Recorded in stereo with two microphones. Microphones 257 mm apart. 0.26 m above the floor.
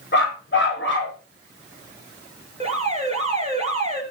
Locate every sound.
0.1 s a dog barking: 45° left (ahead or behind), 8.5 m; by 1.1 s 50° left (ahead or behind), 9.5 m
2.6 s an alarm: 25° right (ahead or behind), 5.5 m